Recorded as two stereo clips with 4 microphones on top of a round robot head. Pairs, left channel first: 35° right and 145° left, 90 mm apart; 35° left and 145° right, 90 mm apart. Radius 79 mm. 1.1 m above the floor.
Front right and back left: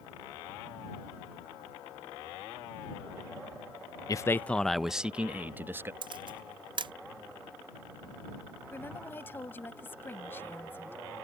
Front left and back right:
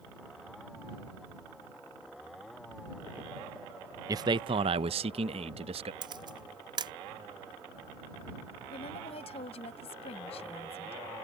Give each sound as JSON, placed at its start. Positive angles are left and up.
{"t": 4.1, "sound": "a man speaking", "azimuth_deg": -90}
{"t": 6.0, "sound": "a camera shutter", "azimuth_deg": 180}
{"t": 8.7, "sound": "a woman speaking", "azimuth_deg": 35}